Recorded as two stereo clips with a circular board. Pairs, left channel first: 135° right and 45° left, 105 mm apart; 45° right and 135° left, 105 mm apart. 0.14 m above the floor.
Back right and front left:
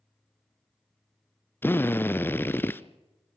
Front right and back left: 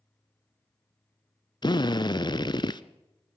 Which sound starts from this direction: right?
A drill, at 1.6 s.